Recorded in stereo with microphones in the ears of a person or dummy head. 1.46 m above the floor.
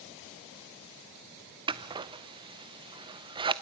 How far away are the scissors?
About 0.7 m.